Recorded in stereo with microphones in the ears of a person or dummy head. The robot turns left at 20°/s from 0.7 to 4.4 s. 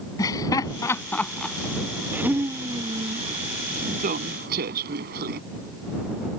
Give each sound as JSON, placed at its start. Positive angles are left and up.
{"t": 0.2, "sound": "laughter", "side_deg": 20}